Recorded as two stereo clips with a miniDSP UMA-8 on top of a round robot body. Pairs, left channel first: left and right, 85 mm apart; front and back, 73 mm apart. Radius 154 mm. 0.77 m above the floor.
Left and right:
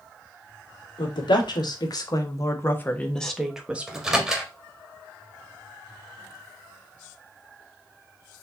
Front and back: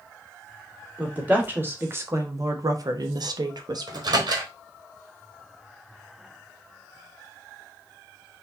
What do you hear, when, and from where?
1.0 s a woman speaking: 110° left, 1.8 m; by 4.1 s 155° right, 1.2 m
3.9 s a microwave: 175° right, 1.6 m